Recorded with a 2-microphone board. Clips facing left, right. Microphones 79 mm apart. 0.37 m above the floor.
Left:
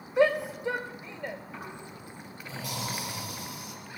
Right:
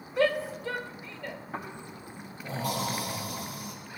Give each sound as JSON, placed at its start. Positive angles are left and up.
{"t": 0.2, "sound": "a shout", "side_deg": 20, "distance_m": 0.8}
{"t": 1.5, "sound": "snoring", "side_deg": -50, "distance_m": 5.0}